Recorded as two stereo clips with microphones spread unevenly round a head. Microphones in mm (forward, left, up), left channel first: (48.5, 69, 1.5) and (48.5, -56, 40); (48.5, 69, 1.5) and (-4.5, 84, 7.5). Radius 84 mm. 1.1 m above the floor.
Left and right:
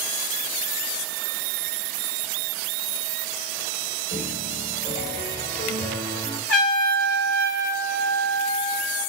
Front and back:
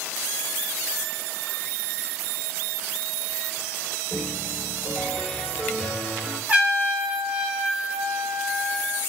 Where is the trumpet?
100° left, 4.5 m.